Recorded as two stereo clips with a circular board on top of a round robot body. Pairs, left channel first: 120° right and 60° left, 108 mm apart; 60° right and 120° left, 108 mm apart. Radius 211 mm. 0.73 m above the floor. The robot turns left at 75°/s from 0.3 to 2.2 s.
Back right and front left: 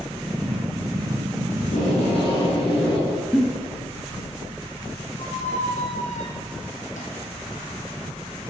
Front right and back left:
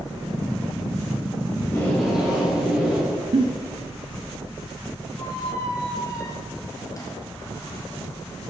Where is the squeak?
120° right, 1.5 m.